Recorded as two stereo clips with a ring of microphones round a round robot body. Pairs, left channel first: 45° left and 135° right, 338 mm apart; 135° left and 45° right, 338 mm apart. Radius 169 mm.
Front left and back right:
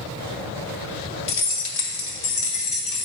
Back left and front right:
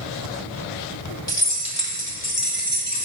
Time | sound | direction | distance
1.3 | keys jangling | 55° left | 1.2 m